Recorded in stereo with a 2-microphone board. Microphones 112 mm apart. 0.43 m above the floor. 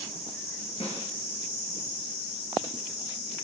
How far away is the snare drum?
About 4.5 m.